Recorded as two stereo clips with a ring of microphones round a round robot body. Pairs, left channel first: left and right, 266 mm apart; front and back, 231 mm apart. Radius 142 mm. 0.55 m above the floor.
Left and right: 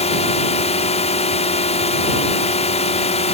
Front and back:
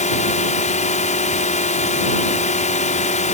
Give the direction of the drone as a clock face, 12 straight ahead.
11 o'clock.